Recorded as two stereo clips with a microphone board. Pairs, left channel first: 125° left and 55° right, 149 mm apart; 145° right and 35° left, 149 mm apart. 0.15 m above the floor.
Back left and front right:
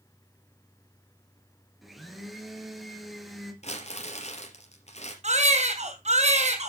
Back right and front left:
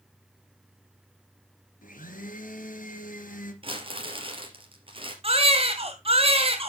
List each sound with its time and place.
1.8 s a blender: 145° right, 2.5 m
3.6 s crumpling: 85° left, 3.5 m
5.2 s a baby crying: 15° right, 2.5 m